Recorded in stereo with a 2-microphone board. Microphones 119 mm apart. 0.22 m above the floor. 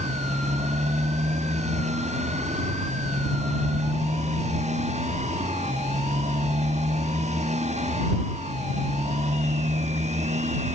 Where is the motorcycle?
75° right (ahead or behind).